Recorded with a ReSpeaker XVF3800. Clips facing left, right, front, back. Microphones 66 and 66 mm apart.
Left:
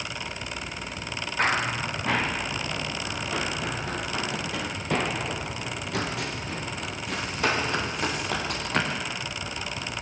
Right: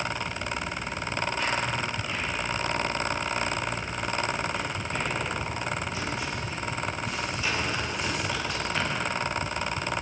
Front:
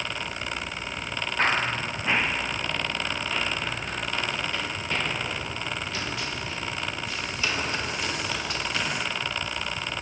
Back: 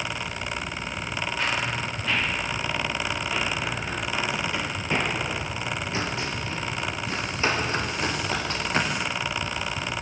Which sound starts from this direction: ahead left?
Running footsteps, at 1.4 s.